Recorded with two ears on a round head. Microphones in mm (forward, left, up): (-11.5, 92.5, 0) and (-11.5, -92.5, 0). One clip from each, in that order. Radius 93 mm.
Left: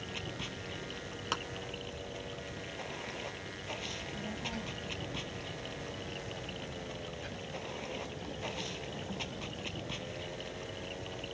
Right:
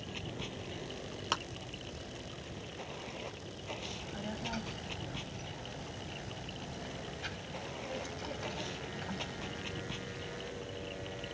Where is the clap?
10° right (ahead or behind).